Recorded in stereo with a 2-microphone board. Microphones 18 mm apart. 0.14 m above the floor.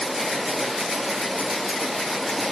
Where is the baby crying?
I don't hear a baby crying.